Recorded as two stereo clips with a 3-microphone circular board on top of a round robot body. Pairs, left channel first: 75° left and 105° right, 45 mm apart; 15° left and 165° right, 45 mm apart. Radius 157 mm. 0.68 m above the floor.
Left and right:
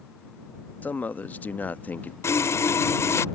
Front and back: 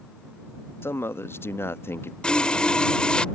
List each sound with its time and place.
0.8 s a man speaking: 30° left
2.2 s sawing: 85° left